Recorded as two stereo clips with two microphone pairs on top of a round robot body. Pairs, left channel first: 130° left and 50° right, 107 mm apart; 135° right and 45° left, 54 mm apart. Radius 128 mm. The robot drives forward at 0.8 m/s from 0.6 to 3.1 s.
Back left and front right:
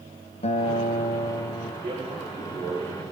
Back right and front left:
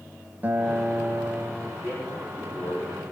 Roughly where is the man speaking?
Right.